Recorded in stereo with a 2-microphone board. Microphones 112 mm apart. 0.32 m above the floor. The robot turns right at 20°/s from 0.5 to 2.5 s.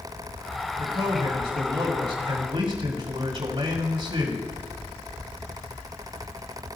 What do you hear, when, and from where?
0.8 s a man speaking: 125° right, 2 m; by 4.5 s 90° right, 2 m